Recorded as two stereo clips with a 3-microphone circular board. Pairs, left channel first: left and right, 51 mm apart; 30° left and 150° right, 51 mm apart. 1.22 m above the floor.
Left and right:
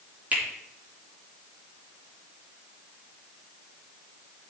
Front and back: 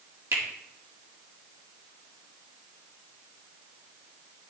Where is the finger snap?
150° right, 1.8 m.